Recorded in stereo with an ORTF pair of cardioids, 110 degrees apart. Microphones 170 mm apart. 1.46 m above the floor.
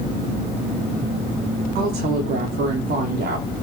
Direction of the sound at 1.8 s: 65° right.